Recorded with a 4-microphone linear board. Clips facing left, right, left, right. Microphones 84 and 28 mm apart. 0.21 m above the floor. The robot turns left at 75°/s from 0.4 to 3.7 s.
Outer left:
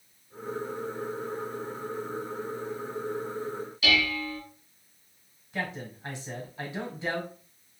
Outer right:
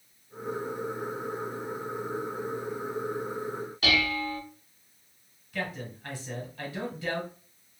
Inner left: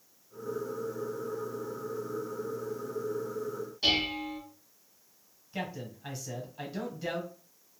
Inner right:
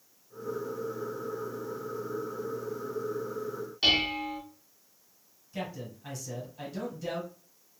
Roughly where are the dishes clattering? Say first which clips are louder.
Even, inner right 3 dB; right.